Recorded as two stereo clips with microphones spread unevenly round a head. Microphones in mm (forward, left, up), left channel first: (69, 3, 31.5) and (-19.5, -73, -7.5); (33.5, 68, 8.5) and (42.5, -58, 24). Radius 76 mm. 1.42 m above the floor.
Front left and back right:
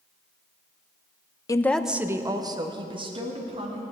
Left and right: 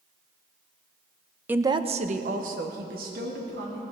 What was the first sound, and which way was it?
A woman speaking, 10° right.